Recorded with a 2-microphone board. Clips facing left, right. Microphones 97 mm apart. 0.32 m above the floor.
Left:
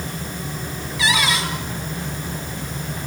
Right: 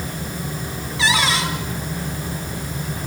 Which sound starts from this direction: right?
A cupboard door, at 1.0 s.